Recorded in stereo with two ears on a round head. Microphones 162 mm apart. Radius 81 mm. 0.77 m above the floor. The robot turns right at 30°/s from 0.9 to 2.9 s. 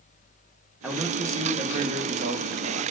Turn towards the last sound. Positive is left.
turn(degrees=-115)